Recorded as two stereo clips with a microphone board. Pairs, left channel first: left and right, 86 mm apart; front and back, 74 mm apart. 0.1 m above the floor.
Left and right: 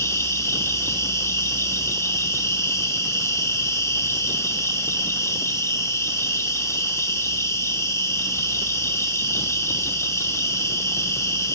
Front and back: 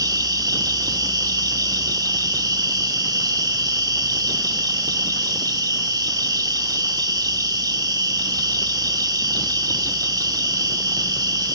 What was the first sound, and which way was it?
An insect, 145° left.